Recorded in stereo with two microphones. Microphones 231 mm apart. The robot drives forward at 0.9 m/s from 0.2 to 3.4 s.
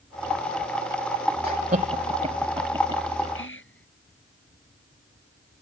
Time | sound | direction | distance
1.4 | laughter | 45° right (ahead or behind) | ?
3.4 | whispering | 65° left (ahead or behind) | ?